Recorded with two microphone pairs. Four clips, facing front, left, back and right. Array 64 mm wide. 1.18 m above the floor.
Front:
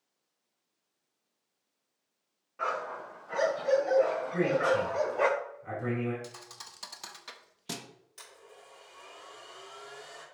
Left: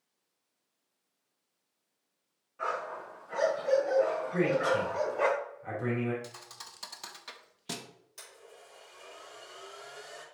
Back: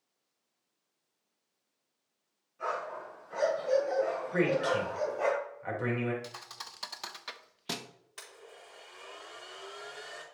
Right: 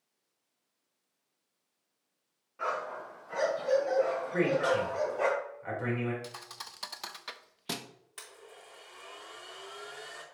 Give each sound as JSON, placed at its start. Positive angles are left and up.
{"t": 2.6, "sound": "a dog barking", "azimuth_deg": -10, "distance_m": 3.5}
{"t": 4.3, "sound": "a man speaking", "azimuth_deg": -155, "distance_m": 4.0}
{"t": 6.2, "sound": "a thud", "azimuth_deg": -120, "distance_m": 0.5}
{"t": 8.2, "sound": "a blender", "azimuth_deg": -135, "distance_m": 3.5}